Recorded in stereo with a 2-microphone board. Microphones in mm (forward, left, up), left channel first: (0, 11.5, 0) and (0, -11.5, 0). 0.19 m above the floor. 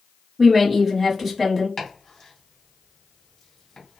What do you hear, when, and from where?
0.4 s a woman speaking: 10° right (ahead or behind), 1.1 m
1.8 s chopping: 20° left (ahead or behind), 1.6 m